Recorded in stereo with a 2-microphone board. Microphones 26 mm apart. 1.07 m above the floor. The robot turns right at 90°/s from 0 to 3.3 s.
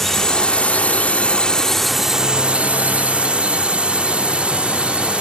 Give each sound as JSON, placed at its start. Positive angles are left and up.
{"t": 0.0, "sound": "a drone", "azimuth_deg": 10}